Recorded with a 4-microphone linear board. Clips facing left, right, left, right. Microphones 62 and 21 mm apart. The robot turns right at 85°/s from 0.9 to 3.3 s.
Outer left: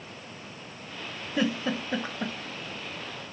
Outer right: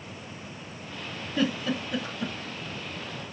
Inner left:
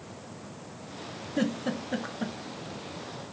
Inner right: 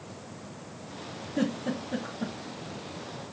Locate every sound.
1.4 s a giggle: 15° left (ahead or behind), 0.9 m; by 2.4 s 35° left (ahead or behind), 0.9 m